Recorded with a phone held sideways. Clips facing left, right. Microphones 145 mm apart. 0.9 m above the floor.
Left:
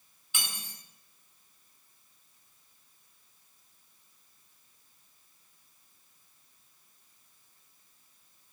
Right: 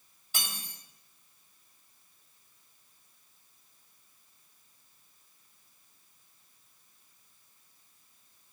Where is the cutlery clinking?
40° right (ahead or behind), 1.0 m.